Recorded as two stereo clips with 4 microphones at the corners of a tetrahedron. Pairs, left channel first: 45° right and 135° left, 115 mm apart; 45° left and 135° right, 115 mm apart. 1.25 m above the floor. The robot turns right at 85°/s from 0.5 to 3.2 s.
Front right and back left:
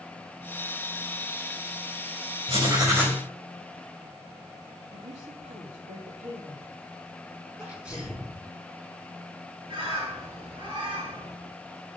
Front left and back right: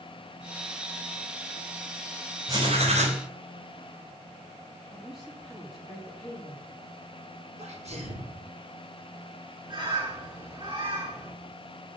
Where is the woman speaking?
135° left, 4 m.